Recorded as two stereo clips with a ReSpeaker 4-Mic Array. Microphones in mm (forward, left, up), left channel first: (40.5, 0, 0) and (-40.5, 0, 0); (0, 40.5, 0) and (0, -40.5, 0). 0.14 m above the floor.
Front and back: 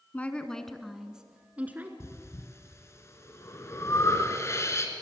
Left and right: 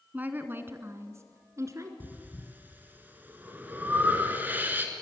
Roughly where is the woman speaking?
Ahead right.